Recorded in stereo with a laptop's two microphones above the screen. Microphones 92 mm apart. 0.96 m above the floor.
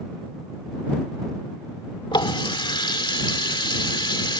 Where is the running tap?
60° left (ahead or behind).